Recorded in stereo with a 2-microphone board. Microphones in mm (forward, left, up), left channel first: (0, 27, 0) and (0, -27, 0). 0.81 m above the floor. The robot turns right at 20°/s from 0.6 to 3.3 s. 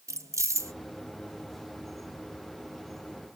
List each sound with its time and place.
0.1 s keys jangling: 65° right (ahead or behind), 0.5 m